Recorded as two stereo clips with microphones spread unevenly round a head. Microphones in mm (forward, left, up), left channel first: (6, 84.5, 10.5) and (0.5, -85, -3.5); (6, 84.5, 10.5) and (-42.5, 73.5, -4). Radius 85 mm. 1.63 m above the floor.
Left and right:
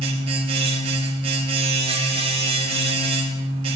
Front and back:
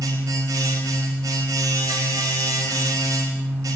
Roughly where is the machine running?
Behind right.